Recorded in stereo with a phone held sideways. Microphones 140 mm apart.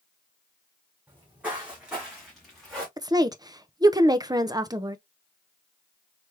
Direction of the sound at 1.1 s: 15° right (ahead or behind).